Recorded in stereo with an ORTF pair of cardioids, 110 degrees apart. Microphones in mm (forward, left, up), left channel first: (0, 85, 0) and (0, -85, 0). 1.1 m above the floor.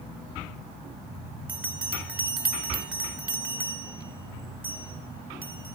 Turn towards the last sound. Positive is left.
turn(degrees=-10)